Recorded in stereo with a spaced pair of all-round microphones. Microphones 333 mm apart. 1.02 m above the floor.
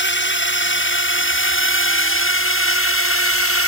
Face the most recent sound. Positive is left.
turn(degrees=40)  # may be behind; listen again after turning